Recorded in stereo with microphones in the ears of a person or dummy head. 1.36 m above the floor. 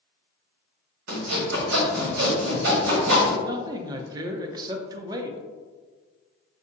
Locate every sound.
1.1 s sawing: 60° right (ahead or behind), 1.6 m
3.4 s a man speaking: 25° right (ahead or behind), 0.5 m